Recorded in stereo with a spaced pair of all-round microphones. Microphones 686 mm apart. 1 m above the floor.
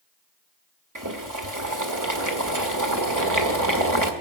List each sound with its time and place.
0.9 s boiling: 25° right (ahead or behind), 1.8 m